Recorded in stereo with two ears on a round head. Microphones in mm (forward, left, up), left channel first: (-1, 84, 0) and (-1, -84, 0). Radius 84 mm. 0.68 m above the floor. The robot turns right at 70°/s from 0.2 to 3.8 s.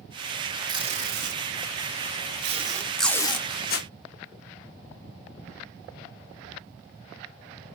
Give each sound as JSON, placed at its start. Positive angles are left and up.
{"t": 0.7, "sound": "tape being pulled", "side_deg": -20, "distance_m": 0.8}